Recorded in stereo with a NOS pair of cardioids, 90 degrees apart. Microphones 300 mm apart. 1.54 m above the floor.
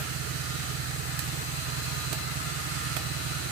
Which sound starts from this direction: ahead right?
An engine running, at 0.0 s.